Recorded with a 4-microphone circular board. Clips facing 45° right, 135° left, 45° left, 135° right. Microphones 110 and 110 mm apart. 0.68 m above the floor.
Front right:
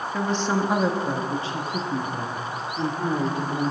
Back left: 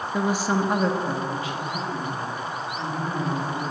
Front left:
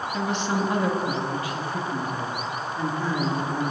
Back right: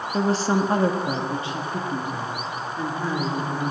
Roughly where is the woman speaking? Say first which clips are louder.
Back left 1 dB, back right 5 dB; behind.